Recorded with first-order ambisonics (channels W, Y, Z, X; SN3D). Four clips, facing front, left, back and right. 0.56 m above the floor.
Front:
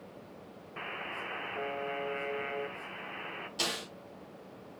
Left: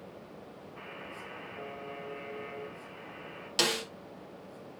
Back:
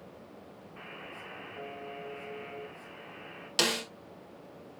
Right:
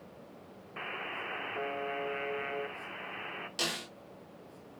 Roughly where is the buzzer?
Ahead right.